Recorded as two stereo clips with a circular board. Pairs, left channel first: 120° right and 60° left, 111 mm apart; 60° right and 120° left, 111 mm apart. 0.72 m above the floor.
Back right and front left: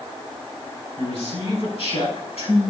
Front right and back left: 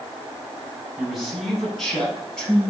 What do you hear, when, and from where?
1.0 s a man speaking: 150° right, 6 m; by 2.7 s 140° right, 7 m